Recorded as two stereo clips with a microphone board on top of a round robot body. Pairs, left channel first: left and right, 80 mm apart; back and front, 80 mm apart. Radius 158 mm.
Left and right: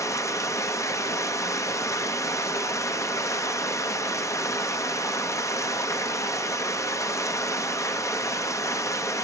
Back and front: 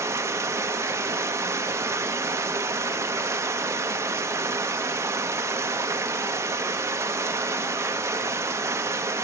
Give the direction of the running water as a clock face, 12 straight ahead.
10 o'clock.